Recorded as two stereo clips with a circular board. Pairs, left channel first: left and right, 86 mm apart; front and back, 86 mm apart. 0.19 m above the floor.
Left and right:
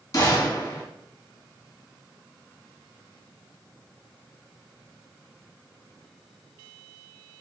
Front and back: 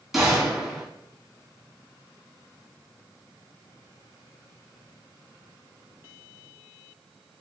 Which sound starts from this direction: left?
A gunshot, at 0.1 s.